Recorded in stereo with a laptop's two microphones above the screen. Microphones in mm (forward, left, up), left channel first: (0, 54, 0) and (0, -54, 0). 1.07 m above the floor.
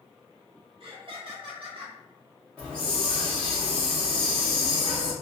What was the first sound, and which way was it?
Laughter, 55° right (ahead or behind).